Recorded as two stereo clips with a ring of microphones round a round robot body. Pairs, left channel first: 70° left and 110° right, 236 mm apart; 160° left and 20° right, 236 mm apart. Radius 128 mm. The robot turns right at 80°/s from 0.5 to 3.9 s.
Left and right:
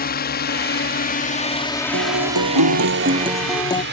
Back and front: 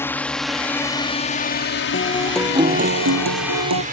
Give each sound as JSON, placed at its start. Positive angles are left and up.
{"t": 0.0, "sound": "a drone", "azimuth_deg": 80}
{"t": 1.9, "sound": "a guitar", "azimuth_deg": -150}